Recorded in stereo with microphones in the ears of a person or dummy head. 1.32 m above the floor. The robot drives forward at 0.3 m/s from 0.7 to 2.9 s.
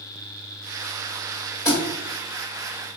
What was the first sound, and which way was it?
A thud, 20° left (ahead or behind).